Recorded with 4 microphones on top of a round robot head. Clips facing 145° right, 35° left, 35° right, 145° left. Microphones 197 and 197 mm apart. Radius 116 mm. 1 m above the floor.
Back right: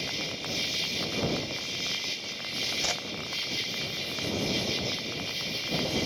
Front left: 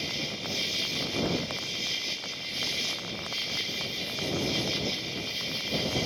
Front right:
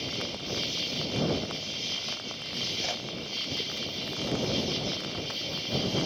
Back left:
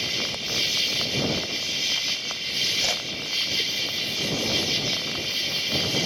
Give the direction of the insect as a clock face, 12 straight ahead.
8 o'clock.